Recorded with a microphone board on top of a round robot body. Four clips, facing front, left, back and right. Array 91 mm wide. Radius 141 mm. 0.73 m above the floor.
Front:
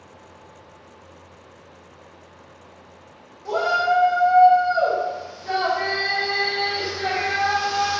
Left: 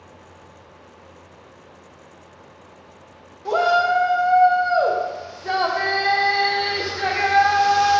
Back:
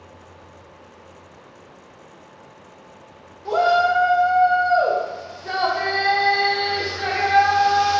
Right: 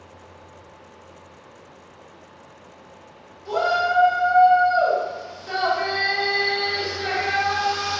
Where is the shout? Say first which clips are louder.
Left 3 dB, back 3 dB; 105° left, 1.2 m.